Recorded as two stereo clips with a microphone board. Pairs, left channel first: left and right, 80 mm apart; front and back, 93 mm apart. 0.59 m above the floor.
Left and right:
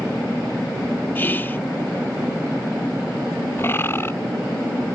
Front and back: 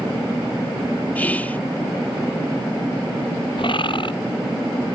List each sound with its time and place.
1.1 s whispering: 55° left
3.6 s a bird: 30° left